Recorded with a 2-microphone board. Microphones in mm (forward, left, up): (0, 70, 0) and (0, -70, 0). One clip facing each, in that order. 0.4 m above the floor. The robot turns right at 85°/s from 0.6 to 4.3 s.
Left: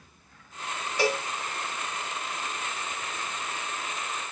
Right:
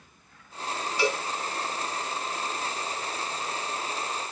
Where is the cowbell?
55° left (ahead or behind), 2.5 m; by 1.2 s 45° left (ahead or behind), 2.5 m.